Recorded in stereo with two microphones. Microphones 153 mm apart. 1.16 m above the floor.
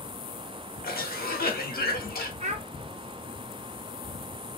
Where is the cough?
75° left (ahead or behind), 1.2 m.